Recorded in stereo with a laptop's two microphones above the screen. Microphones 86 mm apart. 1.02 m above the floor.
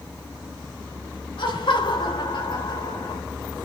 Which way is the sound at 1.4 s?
75° left (ahead or behind).